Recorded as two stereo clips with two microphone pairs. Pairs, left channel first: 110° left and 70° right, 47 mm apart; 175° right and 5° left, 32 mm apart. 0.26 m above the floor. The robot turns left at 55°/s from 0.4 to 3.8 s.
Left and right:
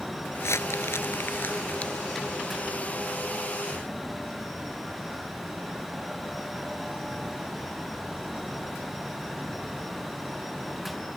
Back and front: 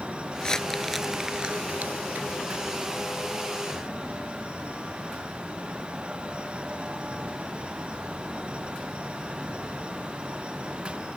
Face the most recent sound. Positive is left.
turn(degrees=-65)